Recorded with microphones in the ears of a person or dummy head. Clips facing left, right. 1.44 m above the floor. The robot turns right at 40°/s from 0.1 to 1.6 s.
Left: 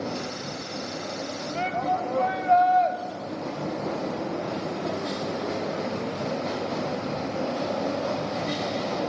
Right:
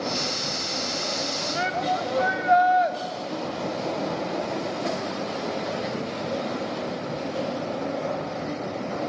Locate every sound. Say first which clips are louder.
1.6 s a shout: even; 10° right (ahead or behind), 0.9 m